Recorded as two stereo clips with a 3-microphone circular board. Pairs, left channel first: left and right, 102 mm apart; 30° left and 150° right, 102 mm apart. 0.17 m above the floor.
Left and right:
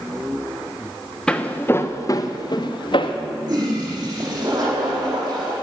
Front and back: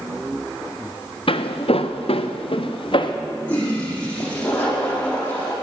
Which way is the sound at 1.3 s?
10° left.